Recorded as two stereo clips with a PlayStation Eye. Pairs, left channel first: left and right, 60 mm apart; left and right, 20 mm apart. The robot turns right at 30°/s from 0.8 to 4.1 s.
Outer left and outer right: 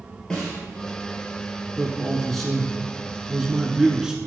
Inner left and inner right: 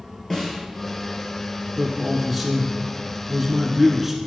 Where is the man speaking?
10° left (ahead or behind), 1.2 m; by 4.2 s 10° right (ahead or behind), 1.2 m.